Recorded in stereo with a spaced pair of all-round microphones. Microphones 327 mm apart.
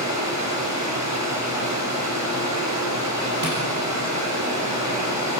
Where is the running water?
55° right (ahead or behind), 9 m.